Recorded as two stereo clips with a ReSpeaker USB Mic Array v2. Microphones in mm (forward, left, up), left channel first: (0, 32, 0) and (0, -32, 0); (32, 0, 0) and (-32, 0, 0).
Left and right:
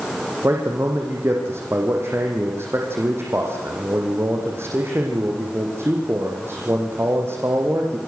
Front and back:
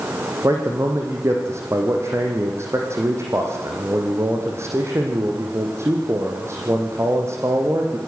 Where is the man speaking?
140° right, 5 m.